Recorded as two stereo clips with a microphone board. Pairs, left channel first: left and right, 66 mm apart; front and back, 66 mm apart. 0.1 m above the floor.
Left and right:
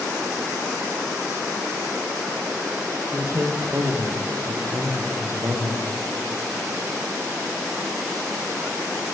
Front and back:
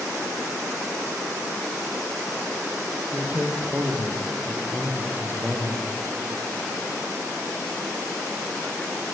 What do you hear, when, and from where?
3.1 s a man speaking: 125° right, 3.5 m